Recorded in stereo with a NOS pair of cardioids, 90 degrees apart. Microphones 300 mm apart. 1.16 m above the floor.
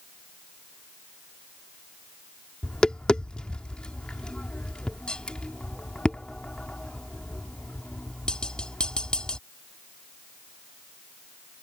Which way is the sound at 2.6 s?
5° left.